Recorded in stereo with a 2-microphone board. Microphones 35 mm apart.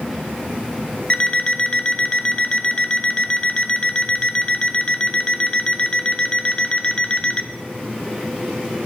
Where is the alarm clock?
35° left (ahead or behind), 0.7 m.